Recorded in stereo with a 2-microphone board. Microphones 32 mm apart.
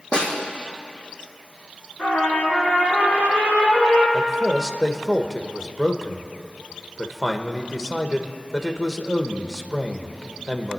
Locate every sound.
0.1 s a snare drum: 30° left (ahead or behind), 4 m
2.0 s a trumpet: 70° left (ahead or behind), 4.5 m
4.1 s a man speaking: 15° left (ahead or behind), 1.1 m